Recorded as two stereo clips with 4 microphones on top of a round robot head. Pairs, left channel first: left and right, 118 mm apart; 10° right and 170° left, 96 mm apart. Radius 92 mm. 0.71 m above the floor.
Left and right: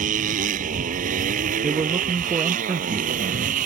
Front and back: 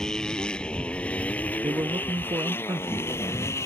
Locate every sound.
0.0 s a motorcycle: 95° right; by 3.6 s 80° right
1.6 s a man speaking: 140° right